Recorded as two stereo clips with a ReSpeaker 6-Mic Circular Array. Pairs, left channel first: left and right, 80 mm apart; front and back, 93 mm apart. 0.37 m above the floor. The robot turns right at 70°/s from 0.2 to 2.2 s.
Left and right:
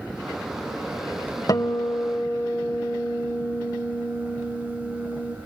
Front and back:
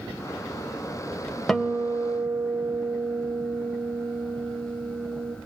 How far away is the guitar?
About 1.1 m.